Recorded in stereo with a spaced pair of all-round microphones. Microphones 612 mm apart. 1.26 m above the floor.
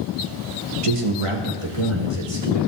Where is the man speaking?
60° right (ahead or behind), 1.2 m; by 2.7 s 40° right (ahead or behind), 2.5 m.